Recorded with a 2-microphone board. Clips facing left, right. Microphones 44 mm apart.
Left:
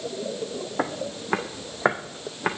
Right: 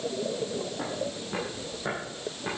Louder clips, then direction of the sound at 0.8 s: Left 4 dB; 65° left (ahead or behind).